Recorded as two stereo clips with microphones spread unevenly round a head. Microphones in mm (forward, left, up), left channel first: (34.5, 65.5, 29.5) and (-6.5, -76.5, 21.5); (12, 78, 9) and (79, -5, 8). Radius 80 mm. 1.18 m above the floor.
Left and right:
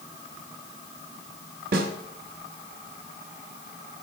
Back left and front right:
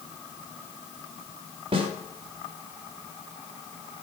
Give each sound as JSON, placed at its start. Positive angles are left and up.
{"t": 1.7, "sound": "a snare drum", "azimuth_deg": -100, "distance_m": 0.9}